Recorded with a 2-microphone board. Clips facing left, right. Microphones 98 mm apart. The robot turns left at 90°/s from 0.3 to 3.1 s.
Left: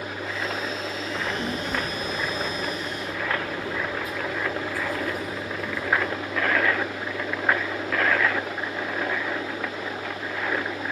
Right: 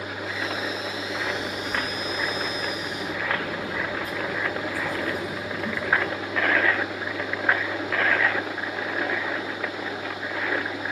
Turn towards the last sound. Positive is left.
turn(degrees=-35)  # may be behind; listen again after turning